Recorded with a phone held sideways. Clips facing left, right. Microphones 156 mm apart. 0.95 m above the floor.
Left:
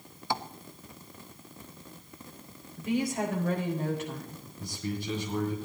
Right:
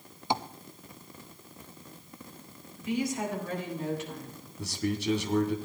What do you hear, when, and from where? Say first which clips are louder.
0.3 s tapping: right 2 dB; 20° right (ahead or behind), 0.5 m
2.8 s a woman speaking: left 1 dB; 50° left (ahead or behind), 4.5 m
4.6 s a man speaking: right 4 dB; 80° right, 2.0 m